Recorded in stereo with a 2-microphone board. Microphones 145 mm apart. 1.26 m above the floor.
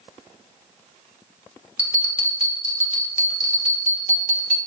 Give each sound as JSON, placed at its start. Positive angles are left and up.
{"t": 1.8, "sound": "a bell", "side_deg": 60, "distance_m": 1.4}